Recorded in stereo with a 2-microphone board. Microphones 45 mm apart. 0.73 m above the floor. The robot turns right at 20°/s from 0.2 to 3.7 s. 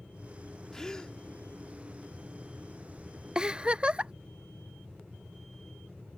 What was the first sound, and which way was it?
A gasp, 10° left (ahead or behind).